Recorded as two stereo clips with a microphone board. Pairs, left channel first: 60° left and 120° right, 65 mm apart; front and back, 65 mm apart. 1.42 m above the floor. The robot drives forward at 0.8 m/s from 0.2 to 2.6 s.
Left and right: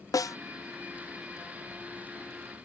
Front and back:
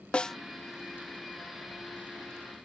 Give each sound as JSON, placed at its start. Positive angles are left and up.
{"t": 0.1, "sound": "a snare drum", "azimuth_deg": 75}